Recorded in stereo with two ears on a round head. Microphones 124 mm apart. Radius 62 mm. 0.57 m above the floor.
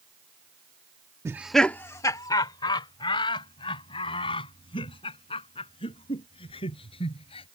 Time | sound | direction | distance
1.2 | laughter | 20° right (ahead or behind) | ?